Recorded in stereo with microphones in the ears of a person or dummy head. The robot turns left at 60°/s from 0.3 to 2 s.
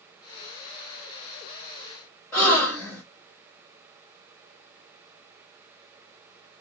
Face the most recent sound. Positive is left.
turn(degrees=15)  # may be behind; listen again after turning